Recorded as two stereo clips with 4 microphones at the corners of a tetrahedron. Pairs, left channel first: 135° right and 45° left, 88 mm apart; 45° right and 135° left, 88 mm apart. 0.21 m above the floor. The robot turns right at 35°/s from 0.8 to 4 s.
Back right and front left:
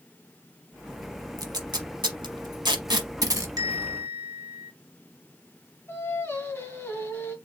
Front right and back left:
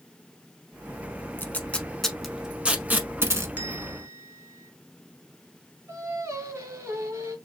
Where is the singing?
175° left, 1.5 m.